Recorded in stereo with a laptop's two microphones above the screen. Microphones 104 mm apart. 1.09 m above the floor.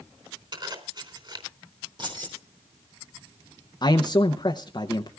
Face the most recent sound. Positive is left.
turn(degrees=45)  # may be behind; listen again after turning